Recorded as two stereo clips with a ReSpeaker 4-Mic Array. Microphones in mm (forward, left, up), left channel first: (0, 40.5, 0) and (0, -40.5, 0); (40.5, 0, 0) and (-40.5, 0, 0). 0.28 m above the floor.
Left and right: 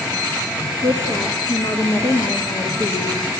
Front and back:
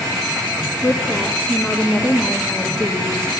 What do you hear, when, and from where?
0.8 s a woman speaking: 80° left, 3.5 m